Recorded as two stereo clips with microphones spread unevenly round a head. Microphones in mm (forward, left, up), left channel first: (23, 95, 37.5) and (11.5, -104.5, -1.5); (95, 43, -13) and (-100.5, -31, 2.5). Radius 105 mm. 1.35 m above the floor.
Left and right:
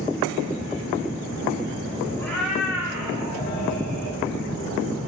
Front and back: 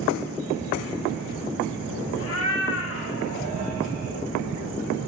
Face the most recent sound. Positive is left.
turn(degrees=-35)